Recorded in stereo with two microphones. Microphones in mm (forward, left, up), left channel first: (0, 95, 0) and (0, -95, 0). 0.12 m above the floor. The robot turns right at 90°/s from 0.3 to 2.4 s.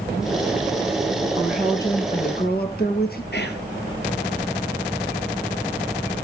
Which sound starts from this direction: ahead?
A woman speaking, at 1.4 s.